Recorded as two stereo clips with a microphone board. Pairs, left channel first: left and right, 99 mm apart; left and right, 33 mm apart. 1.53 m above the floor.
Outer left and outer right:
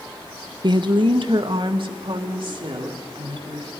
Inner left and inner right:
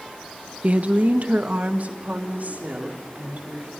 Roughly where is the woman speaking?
Right.